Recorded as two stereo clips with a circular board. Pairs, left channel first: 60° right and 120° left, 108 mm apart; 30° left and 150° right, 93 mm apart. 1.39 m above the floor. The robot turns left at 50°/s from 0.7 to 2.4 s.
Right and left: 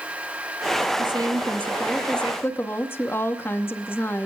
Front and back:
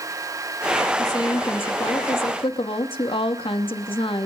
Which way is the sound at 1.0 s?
80° left.